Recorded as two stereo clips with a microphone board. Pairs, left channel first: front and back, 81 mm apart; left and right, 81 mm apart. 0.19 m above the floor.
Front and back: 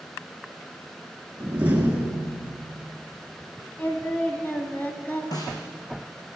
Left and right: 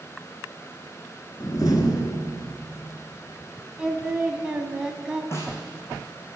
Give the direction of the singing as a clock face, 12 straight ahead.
1 o'clock.